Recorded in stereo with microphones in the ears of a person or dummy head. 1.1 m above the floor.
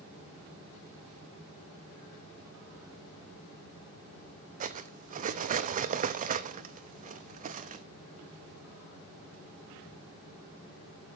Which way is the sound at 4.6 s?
45° right (ahead or behind).